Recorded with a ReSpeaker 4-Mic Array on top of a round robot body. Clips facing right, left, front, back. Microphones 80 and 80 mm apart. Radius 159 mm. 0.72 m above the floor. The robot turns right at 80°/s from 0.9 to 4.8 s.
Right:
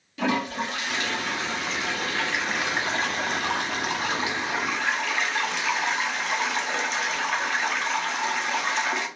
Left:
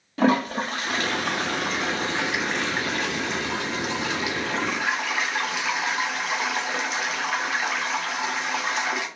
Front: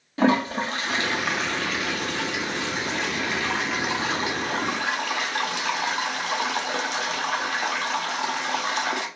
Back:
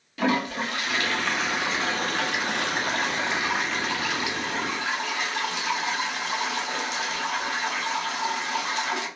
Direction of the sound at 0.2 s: 50° left.